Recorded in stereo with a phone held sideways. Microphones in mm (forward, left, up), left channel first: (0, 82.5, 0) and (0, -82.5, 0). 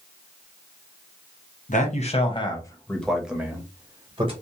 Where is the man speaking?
50° left (ahead or behind), 1.0 m; by 4.3 s 30° right (ahead or behind), 1.2 m.